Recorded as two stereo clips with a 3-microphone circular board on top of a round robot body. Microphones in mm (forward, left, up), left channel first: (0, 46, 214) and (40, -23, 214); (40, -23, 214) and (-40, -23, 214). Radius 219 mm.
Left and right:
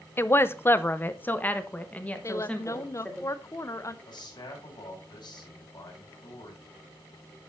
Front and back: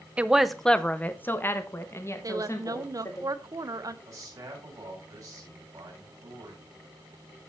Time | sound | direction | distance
0.2 | a woman speaking | 125° left | 0.9 m
2.2 | a woman speaking | 155° left | 1.0 m
4.0 | a man speaking | 140° left | 7 m